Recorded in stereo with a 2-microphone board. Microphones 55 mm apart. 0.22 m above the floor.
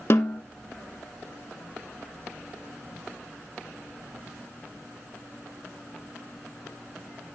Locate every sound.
0.1 s a snare drum: 55° left (ahead or behind), 1.0 m